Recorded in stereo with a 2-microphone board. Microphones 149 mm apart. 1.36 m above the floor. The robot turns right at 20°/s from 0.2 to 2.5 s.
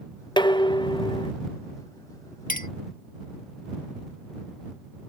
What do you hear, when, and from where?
0.4 s dishes clattering: 35° left (ahead or behind)
2.5 s a clink: 80° left